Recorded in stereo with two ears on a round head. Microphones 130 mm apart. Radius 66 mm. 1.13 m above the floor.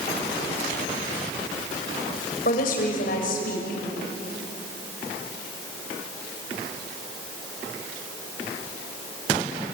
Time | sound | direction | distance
2.5 | a woman speaking | 70° left (ahead or behind) | 5.5 m